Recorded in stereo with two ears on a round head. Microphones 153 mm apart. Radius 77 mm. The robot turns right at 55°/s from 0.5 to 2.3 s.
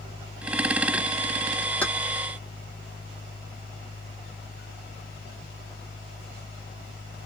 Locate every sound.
1.8 s keys jangling: 10° left (ahead or behind), 1.1 m; by 1.9 s 5° left (ahead or behind), 1.1 m